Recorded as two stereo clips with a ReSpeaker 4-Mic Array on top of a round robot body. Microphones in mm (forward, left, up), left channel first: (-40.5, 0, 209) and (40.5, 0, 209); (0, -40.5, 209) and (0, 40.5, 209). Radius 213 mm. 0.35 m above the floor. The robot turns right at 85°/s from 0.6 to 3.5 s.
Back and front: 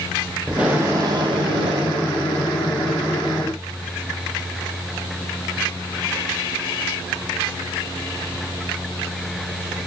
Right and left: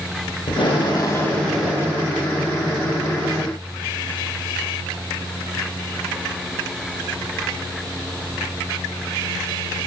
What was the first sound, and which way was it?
Tape being pulled, 80° right.